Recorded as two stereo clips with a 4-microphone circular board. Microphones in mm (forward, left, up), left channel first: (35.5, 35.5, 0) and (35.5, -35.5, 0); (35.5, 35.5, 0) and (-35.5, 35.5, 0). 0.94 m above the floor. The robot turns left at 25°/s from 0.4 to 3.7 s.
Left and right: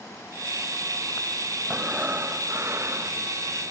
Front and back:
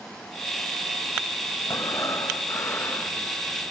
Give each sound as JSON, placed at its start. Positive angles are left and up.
{"t": 1.7, "sound": "breathing", "azimuth_deg": -20, "distance_m": 1.2}